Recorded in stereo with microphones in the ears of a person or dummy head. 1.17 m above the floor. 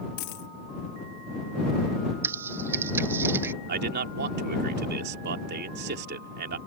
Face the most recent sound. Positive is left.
turn(degrees=-45)  # may be behind; listen again after turning